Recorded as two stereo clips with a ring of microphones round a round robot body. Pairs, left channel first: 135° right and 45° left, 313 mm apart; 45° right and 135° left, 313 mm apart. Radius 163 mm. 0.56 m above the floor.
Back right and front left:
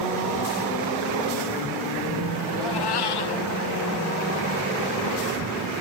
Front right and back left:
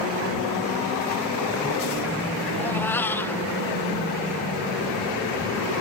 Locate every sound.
2.6 s a cat meowing: 130° right